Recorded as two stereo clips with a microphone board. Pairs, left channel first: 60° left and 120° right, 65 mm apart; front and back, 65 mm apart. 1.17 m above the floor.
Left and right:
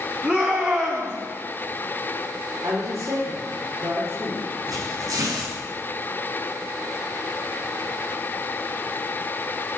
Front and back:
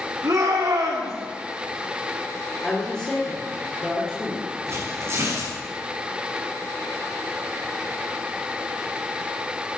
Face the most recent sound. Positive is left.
turn(degrees=-135)